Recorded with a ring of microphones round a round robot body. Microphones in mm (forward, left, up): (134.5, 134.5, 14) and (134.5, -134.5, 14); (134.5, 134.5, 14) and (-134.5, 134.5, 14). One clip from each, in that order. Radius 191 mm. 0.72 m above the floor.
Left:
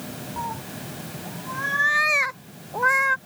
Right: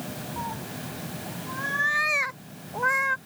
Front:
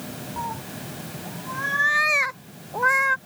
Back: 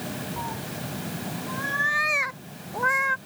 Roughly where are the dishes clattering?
I don't hear dishes clattering.